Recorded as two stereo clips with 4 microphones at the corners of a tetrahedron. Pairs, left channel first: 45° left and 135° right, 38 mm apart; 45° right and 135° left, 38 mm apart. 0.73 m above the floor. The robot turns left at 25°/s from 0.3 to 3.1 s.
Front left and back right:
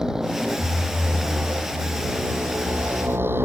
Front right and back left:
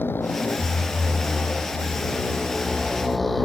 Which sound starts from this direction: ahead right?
A motorcycle, at 0.0 s.